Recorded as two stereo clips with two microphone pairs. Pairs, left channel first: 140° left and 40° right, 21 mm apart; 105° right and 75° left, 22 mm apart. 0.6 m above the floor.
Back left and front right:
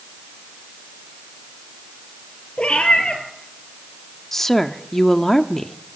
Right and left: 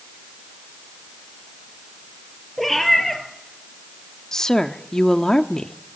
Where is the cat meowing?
170° left, 3 m.